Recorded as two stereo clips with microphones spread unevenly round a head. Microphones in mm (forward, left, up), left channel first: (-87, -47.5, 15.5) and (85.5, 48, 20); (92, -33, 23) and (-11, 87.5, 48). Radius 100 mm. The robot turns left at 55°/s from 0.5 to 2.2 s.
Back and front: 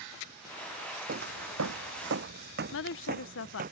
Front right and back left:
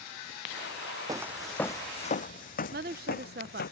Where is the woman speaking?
175° left.